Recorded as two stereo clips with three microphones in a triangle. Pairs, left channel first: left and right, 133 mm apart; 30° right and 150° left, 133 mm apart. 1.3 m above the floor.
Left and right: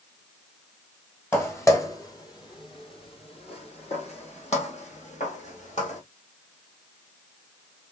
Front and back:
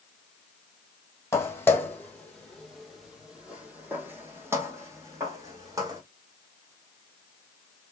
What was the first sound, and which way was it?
Footsteps, 25° left.